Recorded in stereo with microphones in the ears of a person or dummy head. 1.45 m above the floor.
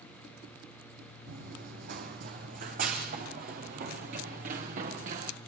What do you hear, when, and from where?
1.3 s running footsteps: 50° right (ahead or behind), 3 m; by 5.3 s 45° right (ahead or behind), 5 m